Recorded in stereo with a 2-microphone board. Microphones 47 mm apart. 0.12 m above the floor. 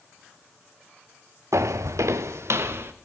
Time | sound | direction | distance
1.5 | footsteps | 70° right (ahead or behind) | 0.6 m